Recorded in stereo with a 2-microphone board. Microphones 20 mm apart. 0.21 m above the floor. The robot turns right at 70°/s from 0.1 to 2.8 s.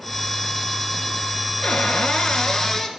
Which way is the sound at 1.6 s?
75° left.